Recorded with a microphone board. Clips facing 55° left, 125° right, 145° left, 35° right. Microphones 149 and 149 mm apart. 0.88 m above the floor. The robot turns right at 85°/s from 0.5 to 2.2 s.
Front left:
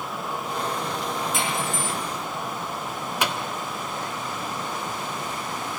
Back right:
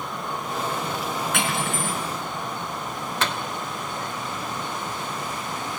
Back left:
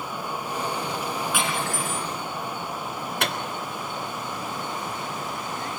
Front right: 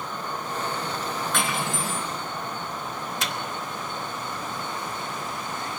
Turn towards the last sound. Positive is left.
turn(degrees=130)